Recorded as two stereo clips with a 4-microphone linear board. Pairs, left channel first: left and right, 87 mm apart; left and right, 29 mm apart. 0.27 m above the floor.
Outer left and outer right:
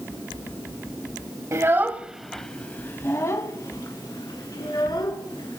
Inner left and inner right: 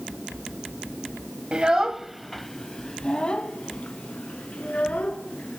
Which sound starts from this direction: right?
A child speaking, at 1.5 s.